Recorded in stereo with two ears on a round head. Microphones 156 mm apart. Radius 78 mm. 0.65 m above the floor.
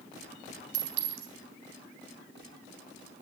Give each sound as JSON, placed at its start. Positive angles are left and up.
{"t": 0.7, "sound": "a clink", "side_deg": -70, "distance_m": 3.0}